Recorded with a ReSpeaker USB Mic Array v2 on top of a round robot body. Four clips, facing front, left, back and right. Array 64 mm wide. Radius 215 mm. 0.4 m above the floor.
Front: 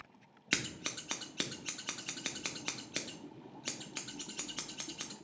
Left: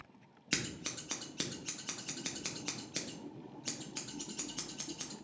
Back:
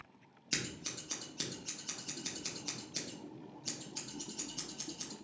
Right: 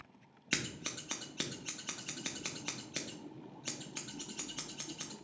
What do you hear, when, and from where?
0.5 s scissors: 10° right, 0.9 m